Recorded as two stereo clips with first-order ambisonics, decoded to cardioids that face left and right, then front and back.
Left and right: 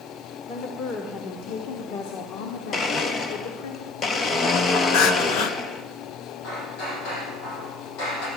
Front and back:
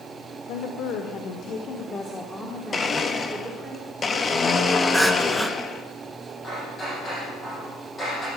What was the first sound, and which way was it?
A woman speaking, 30° left.